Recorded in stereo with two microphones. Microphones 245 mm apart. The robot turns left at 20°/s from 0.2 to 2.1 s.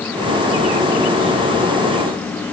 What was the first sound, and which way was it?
Only background noise.